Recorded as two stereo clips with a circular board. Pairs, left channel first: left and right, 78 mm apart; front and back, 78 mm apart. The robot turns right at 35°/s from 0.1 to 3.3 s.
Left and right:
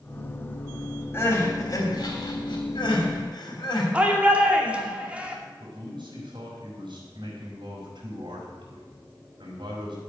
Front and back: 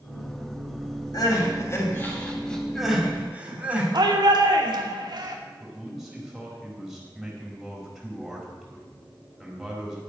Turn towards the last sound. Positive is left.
turn(degrees=-95)